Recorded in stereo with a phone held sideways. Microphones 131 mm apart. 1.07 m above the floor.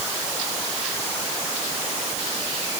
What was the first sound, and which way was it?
Only background noise.